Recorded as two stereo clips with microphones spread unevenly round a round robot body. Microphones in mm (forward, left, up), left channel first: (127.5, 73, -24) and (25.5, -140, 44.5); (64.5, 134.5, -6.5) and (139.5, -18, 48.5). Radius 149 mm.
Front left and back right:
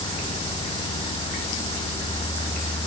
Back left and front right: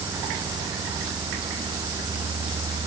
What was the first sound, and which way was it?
Only background noise.